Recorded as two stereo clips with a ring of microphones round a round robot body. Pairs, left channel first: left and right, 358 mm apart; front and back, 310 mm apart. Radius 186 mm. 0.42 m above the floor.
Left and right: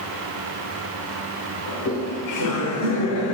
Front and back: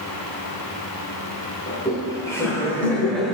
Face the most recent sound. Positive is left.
turn(degrees=95)